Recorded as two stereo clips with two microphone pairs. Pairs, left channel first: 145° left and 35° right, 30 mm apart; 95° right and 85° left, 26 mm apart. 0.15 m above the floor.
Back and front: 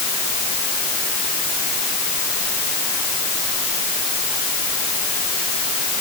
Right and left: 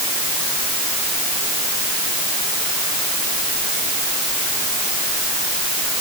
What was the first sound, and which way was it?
Only background noise.